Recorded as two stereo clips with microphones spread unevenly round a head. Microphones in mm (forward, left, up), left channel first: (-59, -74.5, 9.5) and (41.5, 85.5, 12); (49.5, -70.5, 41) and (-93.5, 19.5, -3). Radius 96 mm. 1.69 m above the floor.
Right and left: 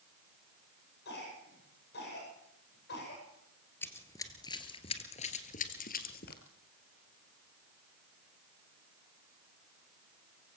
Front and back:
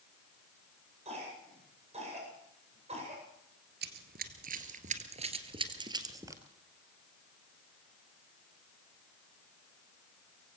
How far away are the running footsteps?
About 2 m.